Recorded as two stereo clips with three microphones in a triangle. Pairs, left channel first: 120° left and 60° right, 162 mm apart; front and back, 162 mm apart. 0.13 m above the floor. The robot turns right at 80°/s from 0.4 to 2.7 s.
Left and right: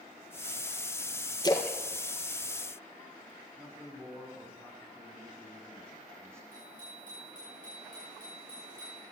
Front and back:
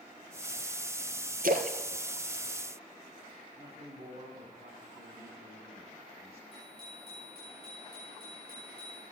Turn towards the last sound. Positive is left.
turn(degrees=-90)